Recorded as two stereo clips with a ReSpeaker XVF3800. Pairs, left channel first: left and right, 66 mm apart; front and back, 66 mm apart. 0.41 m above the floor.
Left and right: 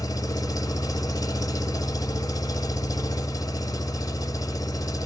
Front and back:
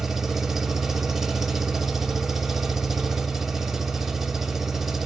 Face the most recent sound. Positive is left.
turn(degrees=90)